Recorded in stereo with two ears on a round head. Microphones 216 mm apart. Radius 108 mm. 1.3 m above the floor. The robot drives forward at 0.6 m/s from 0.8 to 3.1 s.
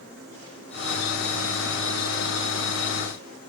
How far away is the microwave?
No microwave in this recording.